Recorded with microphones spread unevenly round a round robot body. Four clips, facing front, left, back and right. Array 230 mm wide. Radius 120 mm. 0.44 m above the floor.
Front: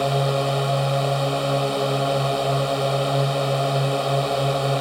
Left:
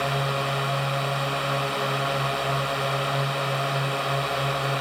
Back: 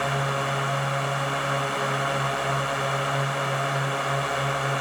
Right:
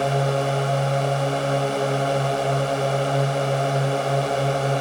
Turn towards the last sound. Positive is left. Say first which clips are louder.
# right 5 dB, front 5 dB
turn(degrees=-45)